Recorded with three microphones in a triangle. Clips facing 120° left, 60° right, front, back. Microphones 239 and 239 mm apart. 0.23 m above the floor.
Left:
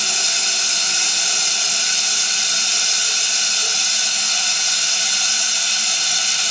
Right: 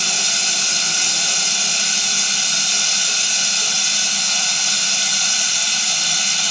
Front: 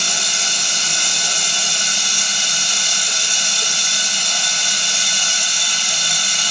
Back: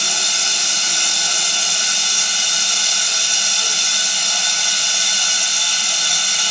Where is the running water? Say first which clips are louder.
Right 2 dB, front 1 dB; 65° right, 1.1 m.